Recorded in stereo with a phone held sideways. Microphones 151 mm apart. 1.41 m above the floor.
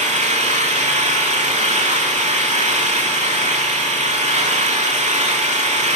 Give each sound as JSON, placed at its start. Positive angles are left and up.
{"t": 0.0, "sound": "an engine running", "side_deg": -50, "distance_m": 2.5}